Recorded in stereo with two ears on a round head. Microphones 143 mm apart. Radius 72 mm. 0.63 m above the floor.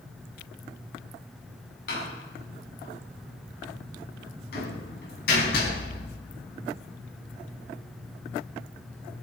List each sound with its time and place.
1.9 s a door slam: 65° left (ahead or behind), 4.5 m